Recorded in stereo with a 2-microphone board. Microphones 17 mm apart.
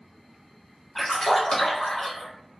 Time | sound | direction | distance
0.9 | a splash | 40° left (ahead or behind) | 1.3 m